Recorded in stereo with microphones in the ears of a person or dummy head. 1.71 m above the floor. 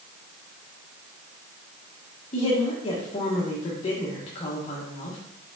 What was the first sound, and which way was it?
A woman speaking, 35° left (ahead or behind).